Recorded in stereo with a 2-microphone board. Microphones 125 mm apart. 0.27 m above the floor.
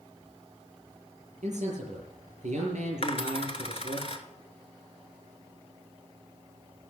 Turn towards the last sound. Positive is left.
turn(degrees=55)  # may be behind; listen again after turning